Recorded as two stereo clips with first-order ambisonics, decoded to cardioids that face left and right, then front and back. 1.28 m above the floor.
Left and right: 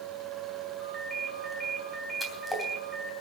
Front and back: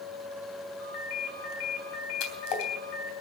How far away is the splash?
About 3 m.